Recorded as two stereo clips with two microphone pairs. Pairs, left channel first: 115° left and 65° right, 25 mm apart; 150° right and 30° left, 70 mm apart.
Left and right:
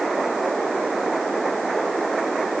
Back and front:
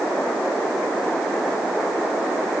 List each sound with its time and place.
Only background noise.